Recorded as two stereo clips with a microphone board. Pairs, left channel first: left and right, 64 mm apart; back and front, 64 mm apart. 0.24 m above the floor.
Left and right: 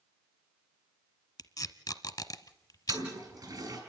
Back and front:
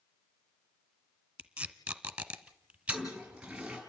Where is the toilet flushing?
75° right, 5 m.